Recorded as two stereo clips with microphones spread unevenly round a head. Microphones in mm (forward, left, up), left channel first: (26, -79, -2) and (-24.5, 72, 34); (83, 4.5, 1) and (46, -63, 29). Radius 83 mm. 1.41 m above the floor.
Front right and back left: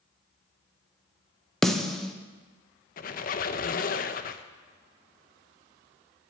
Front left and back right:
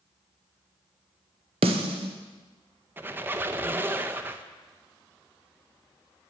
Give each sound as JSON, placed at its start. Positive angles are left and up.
{"t": 1.6, "sound": "a snare drum", "azimuth_deg": -155, "distance_m": 0.8}
{"t": 3.0, "sound": "a squeak", "azimuth_deg": -105, "distance_m": 0.7}